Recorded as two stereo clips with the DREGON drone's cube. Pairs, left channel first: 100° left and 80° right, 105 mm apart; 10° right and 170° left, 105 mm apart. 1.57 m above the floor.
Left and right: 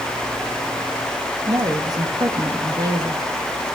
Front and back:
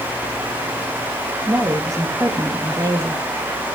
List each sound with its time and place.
1.5 s a woman speaking: 130° right, 2 m